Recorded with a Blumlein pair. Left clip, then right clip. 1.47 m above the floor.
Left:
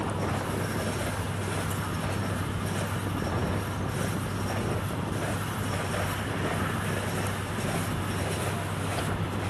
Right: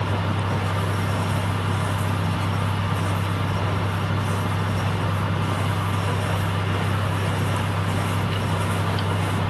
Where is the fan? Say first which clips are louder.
Right 4 dB; 60° right.